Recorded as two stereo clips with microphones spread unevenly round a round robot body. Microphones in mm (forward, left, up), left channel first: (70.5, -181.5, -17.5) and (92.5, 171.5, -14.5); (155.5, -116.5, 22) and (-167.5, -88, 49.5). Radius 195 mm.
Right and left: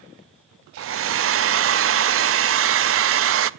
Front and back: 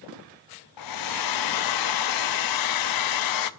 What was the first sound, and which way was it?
A hair dryer, 30° left.